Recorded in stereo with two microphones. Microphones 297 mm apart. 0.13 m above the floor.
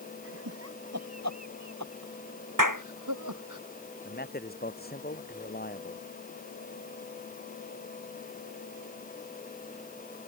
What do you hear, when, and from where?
0.2 s laughter: 45° right (ahead or behind); by 3.6 s 75° right (ahead or behind)
2.6 s a clap: 80° right
4.0 s a man speaking: 30° left (ahead or behind)